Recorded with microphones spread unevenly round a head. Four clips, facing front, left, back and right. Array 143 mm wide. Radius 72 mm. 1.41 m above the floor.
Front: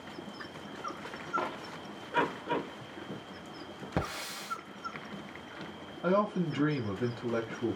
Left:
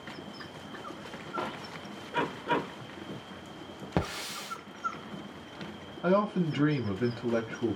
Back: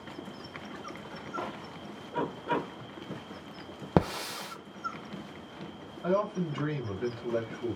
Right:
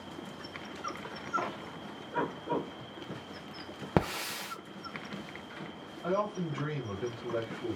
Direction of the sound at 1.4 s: 30° left.